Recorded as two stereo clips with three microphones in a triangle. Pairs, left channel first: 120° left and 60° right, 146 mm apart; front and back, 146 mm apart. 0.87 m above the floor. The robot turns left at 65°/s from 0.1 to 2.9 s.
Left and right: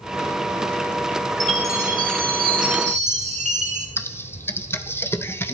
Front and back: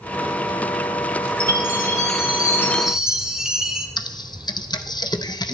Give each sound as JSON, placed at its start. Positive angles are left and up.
{"t": 1.4, "sound": "a chime", "azimuth_deg": 5, "distance_m": 1.4}
{"t": 4.0, "sound": "typing on a keyboard", "azimuth_deg": 50, "distance_m": 0.6}